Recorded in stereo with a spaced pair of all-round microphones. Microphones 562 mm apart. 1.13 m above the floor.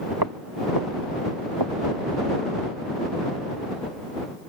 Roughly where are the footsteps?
Right.